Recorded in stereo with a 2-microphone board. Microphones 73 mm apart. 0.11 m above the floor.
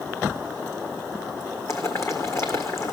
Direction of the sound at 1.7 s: 40° left (ahead or behind).